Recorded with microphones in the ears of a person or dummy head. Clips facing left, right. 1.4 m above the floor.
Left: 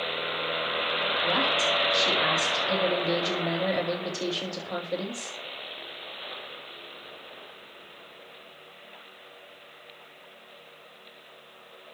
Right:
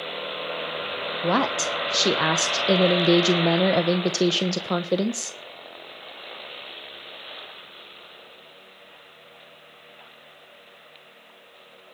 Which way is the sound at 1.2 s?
85° right.